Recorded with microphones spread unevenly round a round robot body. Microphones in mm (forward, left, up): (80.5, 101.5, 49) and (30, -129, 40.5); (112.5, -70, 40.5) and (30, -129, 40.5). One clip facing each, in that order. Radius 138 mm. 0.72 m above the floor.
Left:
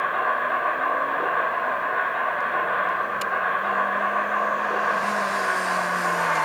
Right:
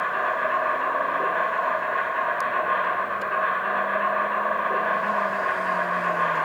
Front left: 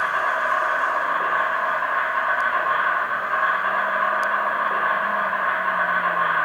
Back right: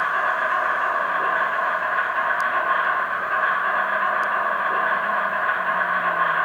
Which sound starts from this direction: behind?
An insect, at 0.0 s.